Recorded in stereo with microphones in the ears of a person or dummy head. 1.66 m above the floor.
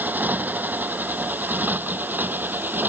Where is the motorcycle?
5° right (ahead or behind); by 2.9 s 10° right (ahead or behind).